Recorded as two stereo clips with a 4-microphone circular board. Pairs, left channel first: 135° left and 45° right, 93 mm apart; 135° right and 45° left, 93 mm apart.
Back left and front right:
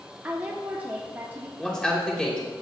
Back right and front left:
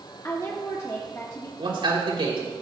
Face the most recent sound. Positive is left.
turn(degrees=55)